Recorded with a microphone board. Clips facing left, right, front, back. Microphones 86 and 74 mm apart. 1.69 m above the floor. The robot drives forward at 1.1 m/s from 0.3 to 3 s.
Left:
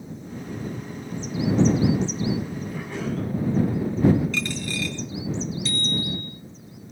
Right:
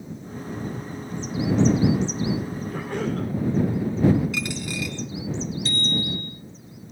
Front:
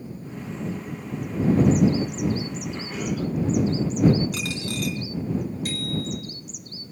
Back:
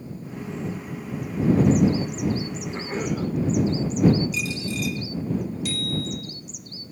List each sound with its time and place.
2.7 s a cough: 125° right, 6 m
4.3 s a dropped coin: 10° right, 4 m
5.7 s a bicycle bell: 45° right, 5 m